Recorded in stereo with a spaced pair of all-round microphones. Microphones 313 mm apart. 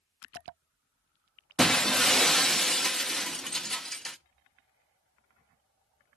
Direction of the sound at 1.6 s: Centre (ahead or behind).